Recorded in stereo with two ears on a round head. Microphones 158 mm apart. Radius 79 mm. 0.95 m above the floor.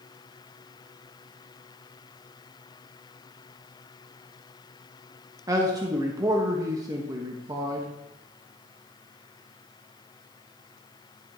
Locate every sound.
5.5 s a man speaking: 20° right (ahead or behind), 1.2 m